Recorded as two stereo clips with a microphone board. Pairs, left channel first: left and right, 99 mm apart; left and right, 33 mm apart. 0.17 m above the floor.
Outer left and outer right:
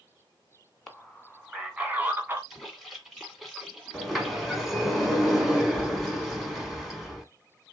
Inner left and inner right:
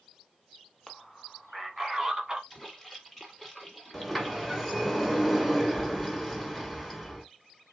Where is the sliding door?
Centre (ahead or behind), 1.1 m.